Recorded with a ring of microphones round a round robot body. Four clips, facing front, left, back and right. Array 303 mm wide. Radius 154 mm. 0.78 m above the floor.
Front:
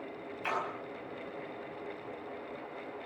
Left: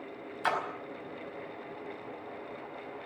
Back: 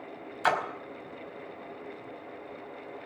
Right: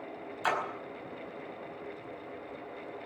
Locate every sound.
0.4 s a splash: 175° left, 4.5 m